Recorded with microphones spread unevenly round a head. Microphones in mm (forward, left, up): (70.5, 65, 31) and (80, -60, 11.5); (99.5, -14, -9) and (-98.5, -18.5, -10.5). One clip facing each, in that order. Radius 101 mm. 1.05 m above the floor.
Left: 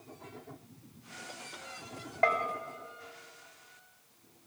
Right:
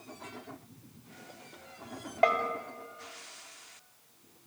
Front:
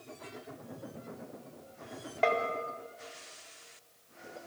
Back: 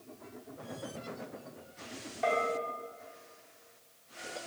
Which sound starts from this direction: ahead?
A bell, at 2.2 s.